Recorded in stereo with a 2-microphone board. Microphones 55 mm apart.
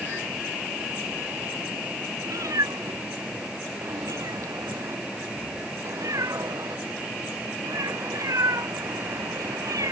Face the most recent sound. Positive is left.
turn(degrees=-85)